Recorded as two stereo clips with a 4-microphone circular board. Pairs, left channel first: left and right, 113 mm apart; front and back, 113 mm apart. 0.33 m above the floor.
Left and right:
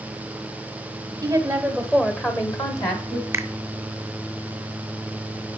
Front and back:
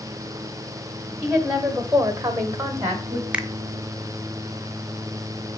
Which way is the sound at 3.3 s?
120° right.